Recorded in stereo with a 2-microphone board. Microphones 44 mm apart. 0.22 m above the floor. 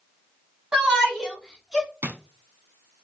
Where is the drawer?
60° right (ahead or behind), 0.5 m.